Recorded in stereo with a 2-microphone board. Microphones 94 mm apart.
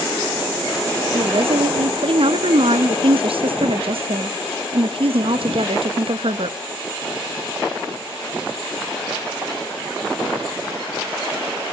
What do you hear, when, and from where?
1.1 s a woman speaking: 75° right (ahead or behind), 1.5 m